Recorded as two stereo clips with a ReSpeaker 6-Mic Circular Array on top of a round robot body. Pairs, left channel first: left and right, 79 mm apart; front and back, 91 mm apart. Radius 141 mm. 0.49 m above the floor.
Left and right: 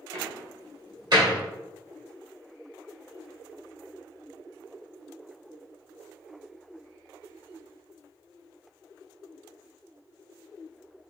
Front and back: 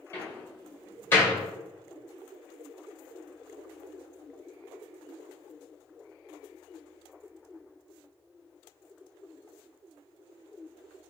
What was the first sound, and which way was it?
A door slam, 65° right.